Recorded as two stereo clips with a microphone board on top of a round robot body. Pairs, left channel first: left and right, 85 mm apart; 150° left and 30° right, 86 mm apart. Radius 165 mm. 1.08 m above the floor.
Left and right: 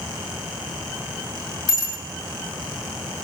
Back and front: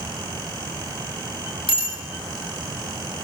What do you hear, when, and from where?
1.7 s a bicycle bell: 135° left, 5.5 m